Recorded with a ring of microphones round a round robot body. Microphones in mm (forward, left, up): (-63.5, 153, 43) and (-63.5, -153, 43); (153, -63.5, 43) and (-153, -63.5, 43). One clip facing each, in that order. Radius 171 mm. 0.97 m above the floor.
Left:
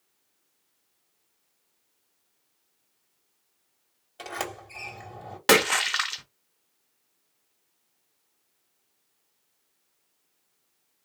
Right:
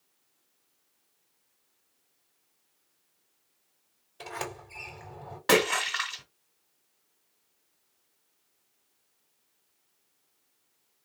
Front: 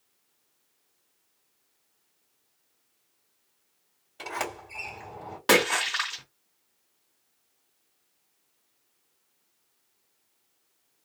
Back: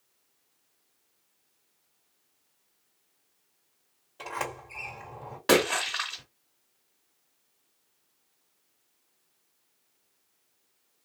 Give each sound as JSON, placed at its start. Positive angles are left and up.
{"t": 4.2, "sound": "a sliding door", "azimuth_deg": 75, "distance_m": 3.0}
{"t": 5.5, "sound": "a splash", "azimuth_deg": 80, "distance_m": 0.8}